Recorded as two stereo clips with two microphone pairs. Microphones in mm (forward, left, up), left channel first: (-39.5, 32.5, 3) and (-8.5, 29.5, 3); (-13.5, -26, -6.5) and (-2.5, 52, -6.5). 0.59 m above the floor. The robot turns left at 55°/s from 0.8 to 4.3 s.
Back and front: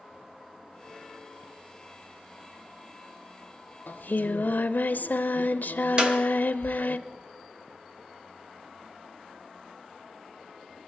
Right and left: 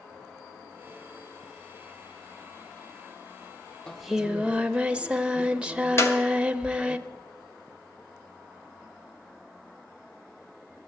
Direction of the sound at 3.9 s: 175° right.